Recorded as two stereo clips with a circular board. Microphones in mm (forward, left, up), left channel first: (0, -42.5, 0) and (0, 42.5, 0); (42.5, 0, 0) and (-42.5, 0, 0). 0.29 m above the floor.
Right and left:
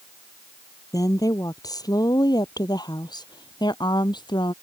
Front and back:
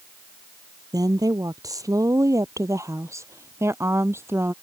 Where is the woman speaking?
135° right; by 4.5 s 120° right.